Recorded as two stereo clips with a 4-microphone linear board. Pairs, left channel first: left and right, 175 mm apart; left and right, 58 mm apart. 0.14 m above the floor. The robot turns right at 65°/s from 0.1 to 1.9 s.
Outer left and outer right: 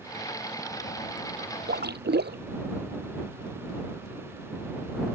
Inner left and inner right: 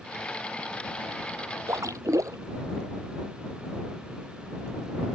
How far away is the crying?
No crying in this recording.